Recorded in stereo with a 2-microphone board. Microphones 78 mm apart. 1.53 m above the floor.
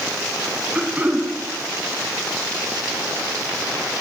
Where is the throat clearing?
20° right (ahead or behind), 2.5 m.